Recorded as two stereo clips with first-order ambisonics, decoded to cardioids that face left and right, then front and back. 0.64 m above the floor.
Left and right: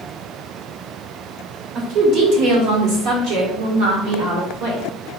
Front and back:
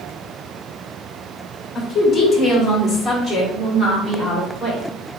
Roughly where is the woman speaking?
Ahead right.